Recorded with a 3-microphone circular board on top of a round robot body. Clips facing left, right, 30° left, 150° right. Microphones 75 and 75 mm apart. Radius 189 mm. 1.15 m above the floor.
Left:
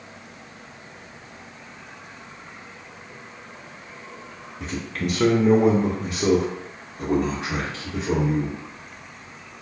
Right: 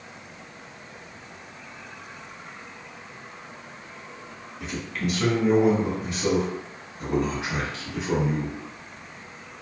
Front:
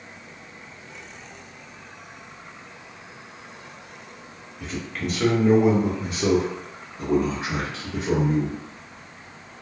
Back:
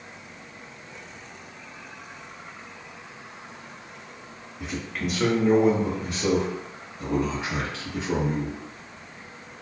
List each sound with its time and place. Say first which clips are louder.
4.6 s a man speaking: left 2 dB, even; 145° left, 0.9 m; by 8.6 s 30° left, 1.9 m